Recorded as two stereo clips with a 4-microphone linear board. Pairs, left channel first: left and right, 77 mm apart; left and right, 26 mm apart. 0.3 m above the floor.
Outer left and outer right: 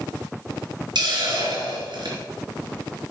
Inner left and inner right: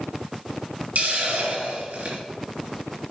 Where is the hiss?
75° right (ahead or behind), 3.5 m.